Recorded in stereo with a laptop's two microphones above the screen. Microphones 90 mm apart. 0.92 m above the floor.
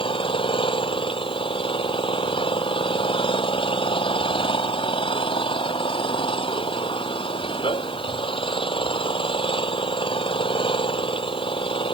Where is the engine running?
75° left (ahead or behind).